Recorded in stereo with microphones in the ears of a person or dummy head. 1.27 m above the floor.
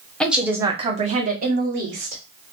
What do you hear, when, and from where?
0.2 s a woman speaking: centre (ahead or behind), 0.8 m; by 2.2 s 60° right (ahead or behind), 1.4 m